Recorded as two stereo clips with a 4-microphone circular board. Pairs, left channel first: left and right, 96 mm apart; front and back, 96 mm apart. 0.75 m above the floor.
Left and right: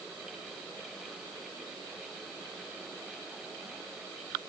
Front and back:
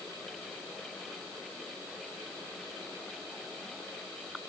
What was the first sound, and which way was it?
Only background noise.